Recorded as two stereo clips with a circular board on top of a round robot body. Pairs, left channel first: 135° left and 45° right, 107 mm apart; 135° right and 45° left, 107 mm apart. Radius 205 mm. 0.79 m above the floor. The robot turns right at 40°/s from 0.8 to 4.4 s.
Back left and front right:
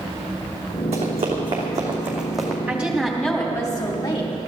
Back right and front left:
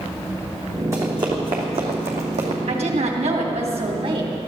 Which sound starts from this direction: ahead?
Running footsteps, at 0.9 s.